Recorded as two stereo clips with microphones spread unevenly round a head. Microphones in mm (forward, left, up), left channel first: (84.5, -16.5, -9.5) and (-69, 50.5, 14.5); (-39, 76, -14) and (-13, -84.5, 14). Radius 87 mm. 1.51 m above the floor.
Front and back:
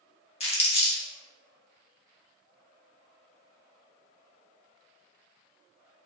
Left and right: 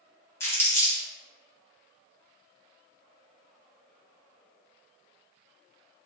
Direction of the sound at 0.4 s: 20° left.